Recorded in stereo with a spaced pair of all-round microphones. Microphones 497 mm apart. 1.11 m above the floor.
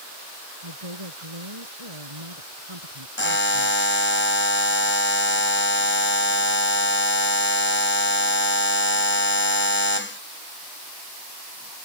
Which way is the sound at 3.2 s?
25° left (ahead or behind).